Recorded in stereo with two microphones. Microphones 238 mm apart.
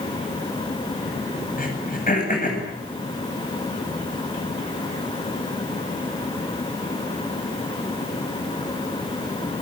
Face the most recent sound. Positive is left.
turn(degrees=35)  # may be behind; listen again after turning